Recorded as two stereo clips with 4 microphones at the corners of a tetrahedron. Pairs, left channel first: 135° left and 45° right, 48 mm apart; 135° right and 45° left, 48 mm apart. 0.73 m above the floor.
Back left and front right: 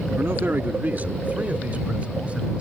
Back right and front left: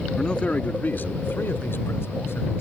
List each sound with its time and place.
0.2 s a man speaking: 60° right; by 2.6 s 110° right